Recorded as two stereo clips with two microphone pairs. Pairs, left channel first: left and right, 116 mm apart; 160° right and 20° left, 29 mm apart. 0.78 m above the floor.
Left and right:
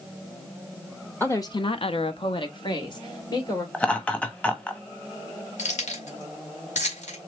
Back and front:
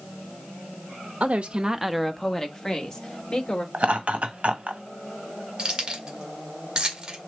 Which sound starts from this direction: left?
Keys jangling, at 5.6 s.